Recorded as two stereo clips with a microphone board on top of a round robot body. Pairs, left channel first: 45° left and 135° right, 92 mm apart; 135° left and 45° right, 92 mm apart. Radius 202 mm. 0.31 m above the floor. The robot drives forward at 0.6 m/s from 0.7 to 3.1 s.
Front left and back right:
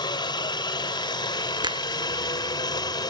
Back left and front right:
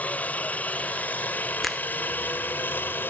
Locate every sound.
0.0 s a helicopter: 65° left; by 3.1 s 70° left
1.6 s a finger snap: 135° right; by 1.9 s 140° right